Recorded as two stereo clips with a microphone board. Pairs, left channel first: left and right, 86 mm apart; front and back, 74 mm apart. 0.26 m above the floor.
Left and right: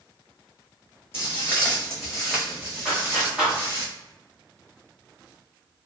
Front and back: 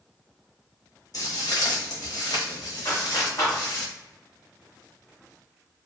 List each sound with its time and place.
1.1 s footsteps: 30° left, 1.0 m; by 3.9 s 30° right, 1.7 m
2.9 s a clap: 15° right, 1.7 m